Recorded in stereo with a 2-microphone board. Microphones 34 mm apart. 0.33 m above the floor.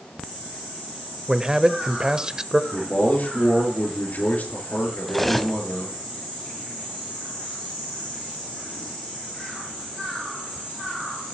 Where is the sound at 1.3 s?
20° right (ahead or behind), 0.9 m.